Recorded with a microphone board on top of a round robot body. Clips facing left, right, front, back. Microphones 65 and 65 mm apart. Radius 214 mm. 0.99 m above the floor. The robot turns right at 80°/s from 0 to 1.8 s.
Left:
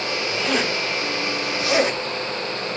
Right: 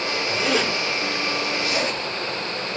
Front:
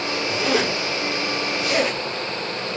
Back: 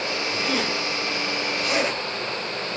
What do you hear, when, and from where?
0.3 s a zipper: 20° right, 8.5 m; by 2.8 s 100° left, 8.5 m